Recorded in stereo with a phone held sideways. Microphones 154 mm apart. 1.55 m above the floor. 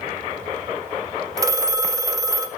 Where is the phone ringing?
25° right (ahead or behind), 0.6 m.